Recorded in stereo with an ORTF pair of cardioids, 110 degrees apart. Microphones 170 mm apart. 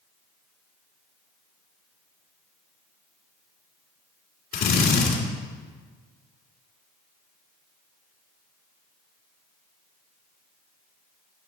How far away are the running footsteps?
No running footsteps in this recording.